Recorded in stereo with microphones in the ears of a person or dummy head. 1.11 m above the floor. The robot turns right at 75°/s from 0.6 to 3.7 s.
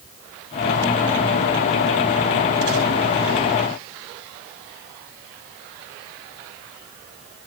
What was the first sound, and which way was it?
Only background noise.